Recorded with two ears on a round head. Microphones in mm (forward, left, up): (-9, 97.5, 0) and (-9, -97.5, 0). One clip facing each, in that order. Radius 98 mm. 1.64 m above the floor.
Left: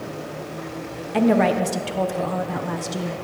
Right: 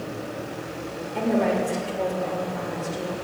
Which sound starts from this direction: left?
A woman speaking, at 1.1 s.